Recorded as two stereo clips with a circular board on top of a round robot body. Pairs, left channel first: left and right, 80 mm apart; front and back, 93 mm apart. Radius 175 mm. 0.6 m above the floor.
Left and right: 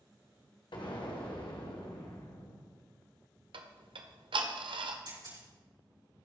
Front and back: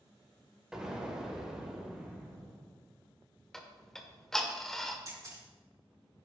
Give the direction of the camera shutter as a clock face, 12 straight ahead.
4 o'clock.